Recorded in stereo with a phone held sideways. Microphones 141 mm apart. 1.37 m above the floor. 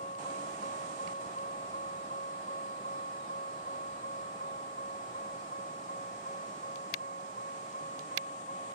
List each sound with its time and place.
0.0 s a vehicle: 65° left (ahead or behind); by 8.8 s 75° left (ahead or behind)